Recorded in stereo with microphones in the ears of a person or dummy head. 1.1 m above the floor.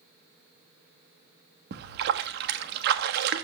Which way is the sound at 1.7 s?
60° right (ahead or behind).